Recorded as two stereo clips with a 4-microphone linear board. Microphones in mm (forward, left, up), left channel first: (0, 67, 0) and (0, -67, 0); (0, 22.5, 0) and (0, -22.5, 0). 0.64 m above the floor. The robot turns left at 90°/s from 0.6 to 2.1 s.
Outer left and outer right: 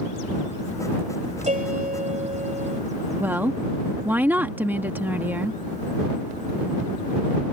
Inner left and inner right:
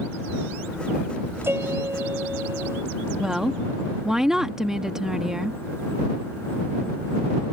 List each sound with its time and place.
1.4 s a piano: 60° right; by 2.8 s 120° right
3.2 s a woman speaking: 15° right (ahead or behind)